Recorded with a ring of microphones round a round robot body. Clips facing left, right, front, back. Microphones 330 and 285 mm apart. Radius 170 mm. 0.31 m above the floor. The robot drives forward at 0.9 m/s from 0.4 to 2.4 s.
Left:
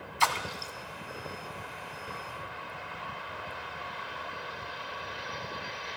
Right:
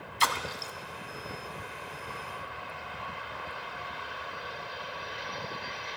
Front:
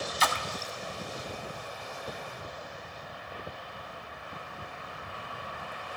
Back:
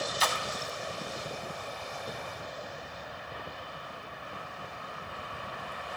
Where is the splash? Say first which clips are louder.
Even, even; 20° right, 1.0 m; by 0.7 s 30° right, 0.7 m.